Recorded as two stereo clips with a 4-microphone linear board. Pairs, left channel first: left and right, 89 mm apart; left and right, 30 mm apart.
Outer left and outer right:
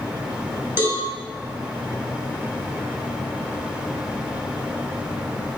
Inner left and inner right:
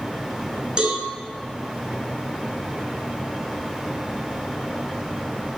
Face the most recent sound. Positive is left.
turn(degrees=-25)  # may be behind; listen again after turning